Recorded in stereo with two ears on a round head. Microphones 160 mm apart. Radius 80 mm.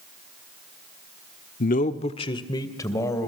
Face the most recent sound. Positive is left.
turn(degrees=15)  # may be behind; listen again after turning